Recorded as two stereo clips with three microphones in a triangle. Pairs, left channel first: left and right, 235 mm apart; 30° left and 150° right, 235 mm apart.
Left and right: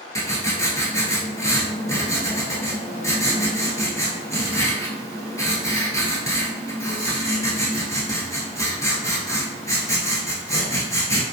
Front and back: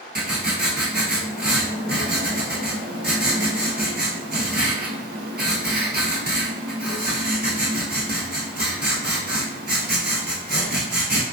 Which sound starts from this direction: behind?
Writing, at 0.1 s.